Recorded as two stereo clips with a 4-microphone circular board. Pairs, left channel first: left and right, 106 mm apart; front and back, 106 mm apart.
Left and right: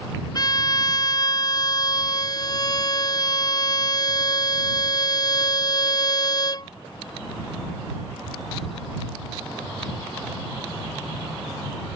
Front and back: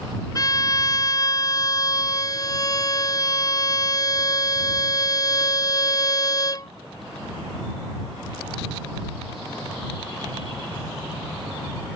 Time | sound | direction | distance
0.3 | a violin | 45° left | ?